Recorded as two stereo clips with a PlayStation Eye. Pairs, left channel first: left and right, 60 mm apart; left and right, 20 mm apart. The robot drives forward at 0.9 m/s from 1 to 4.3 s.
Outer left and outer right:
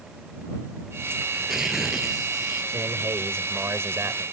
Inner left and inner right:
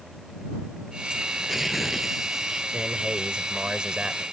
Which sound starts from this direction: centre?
Tearing paper, at 1.3 s.